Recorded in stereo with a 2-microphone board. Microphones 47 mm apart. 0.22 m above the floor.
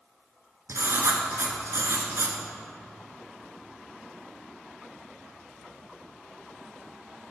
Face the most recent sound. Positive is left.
turn(degrees=-70)  # may be behind; listen again after turning